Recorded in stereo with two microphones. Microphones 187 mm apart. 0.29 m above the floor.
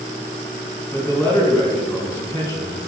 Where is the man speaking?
15° left (ahead or behind), 3 m.